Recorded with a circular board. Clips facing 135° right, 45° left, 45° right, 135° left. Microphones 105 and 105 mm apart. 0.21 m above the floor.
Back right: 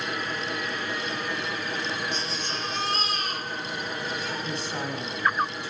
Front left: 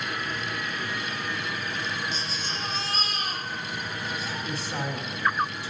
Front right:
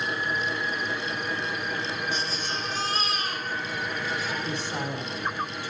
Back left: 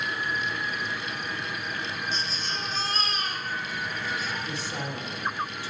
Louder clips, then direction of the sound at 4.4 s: Even, front right 3 dB; 35° right.